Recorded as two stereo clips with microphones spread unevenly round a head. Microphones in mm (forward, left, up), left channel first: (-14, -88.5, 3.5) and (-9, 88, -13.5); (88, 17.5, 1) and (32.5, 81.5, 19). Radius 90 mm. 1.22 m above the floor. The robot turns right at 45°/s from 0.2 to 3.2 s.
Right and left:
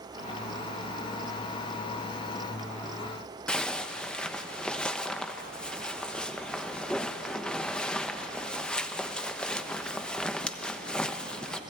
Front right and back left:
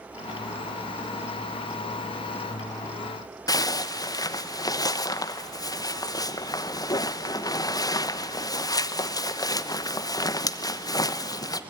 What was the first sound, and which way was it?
A zipper, 5° right.